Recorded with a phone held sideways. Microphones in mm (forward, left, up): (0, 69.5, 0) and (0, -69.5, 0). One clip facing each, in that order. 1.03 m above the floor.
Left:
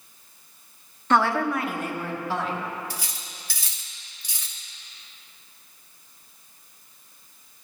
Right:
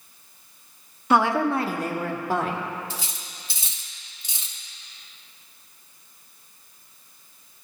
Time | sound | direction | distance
1.1 | a woman speaking | 10° right (ahead or behind) | 0.5 m
2.9 | cutlery clinking | 25° right (ahead or behind) | 0.8 m